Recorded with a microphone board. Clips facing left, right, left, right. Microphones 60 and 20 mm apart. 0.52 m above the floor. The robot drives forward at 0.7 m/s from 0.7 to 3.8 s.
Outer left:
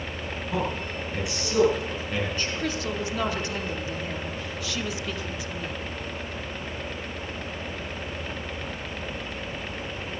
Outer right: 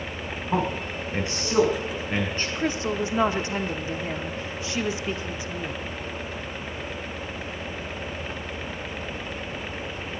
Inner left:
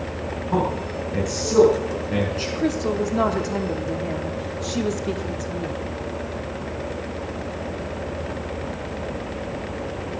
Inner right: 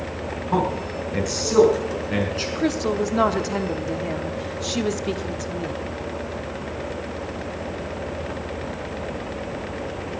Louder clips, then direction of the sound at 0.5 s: Outer right 3 dB, inner right 1 dB; 40° right (ahead or behind).